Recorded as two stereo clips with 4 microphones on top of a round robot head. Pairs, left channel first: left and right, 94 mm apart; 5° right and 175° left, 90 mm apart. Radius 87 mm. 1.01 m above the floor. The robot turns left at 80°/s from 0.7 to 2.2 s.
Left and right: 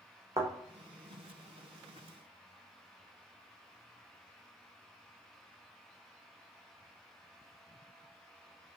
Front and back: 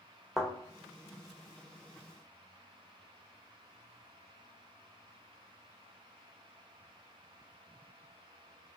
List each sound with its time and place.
0.4 s a thud: 100° right, 0.7 m